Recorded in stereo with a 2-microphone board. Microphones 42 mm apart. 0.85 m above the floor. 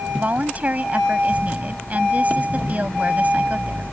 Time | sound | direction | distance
0.1 | a woman speaking | 35° right (ahead or behind) | ?